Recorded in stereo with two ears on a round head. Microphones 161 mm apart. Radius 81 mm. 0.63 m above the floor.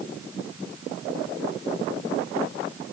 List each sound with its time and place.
Only background noise.